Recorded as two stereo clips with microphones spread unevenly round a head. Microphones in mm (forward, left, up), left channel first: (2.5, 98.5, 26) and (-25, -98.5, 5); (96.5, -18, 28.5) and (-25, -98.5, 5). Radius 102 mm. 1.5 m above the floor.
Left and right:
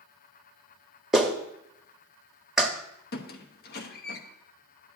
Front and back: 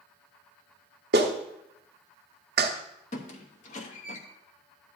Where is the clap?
175° left, 0.7 m.